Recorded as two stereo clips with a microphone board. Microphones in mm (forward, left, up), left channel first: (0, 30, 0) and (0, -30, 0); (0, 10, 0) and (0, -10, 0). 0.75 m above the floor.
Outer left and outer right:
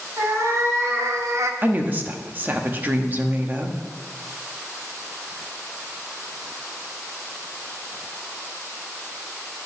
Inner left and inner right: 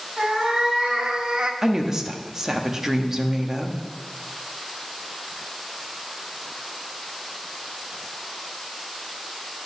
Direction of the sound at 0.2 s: 55° right (ahead or behind).